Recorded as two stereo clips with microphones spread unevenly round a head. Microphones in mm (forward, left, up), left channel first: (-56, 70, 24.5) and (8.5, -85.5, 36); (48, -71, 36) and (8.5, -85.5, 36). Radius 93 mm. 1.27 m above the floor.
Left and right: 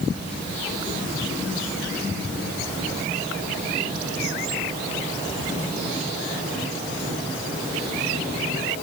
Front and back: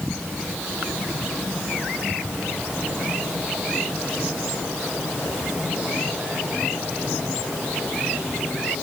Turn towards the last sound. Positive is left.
No sound to turn to.